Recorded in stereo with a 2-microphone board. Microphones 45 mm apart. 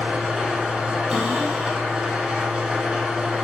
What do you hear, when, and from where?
0.0 s an engine running: 20° right (ahead or behind), 0.7 m
1.1 s a cupboard door: 10° right (ahead or behind), 0.7 m